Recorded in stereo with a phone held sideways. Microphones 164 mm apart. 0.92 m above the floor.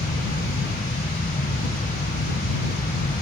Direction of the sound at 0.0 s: 85° left.